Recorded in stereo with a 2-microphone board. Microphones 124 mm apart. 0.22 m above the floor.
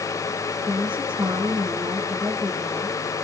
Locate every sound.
0.7 s a woman speaking: 10° right (ahead or behind), 6 m